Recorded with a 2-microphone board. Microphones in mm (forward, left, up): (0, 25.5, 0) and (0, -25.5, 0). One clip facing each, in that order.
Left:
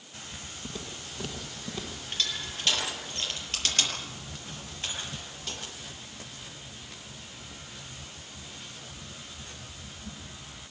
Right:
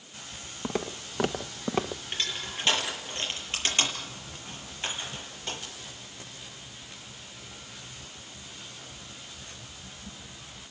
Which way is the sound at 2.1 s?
30° right (ahead or behind).